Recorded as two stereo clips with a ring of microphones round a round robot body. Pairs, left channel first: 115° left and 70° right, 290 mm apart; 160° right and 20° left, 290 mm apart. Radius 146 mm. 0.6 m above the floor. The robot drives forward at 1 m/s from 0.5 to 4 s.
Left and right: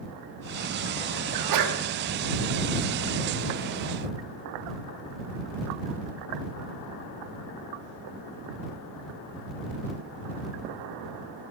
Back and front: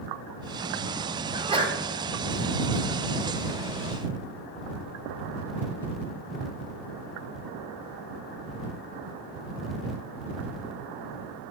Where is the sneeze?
50° right, 3 m; by 1.8 s 55° right, 2.5 m.